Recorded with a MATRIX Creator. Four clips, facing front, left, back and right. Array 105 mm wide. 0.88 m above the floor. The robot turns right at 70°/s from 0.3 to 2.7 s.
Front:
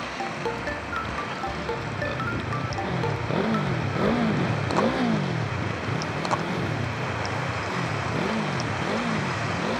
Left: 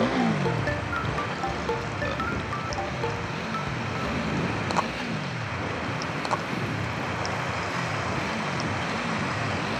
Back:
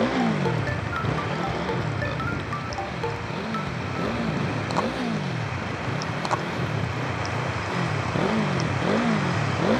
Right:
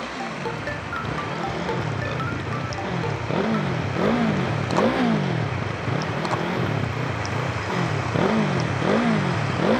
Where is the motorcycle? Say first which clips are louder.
Left 5 dB, back 7 dB; 145° left; by 9.8 s 115° right.